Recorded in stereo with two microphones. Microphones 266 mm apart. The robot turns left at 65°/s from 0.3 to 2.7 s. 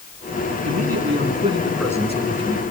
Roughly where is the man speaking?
Right.